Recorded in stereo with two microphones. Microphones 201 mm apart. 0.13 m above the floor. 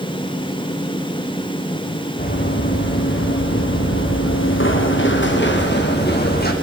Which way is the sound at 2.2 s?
50° left (ahead or behind).